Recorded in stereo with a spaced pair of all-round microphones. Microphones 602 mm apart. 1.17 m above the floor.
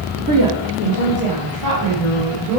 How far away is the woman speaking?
About 0.7 m.